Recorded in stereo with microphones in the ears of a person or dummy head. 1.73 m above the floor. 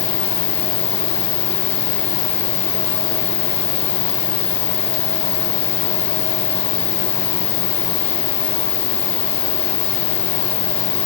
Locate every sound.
0.0 s an insect: 40° left (ahead or behind), 3 m